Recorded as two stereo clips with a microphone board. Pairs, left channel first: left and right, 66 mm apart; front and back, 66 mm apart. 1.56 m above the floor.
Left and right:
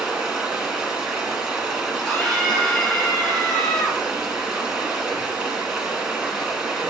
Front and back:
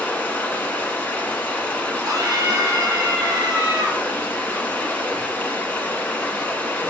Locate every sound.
0.0 s running water: 30° right, 1.6 m
2.0 s a scream: 170° left, 3 m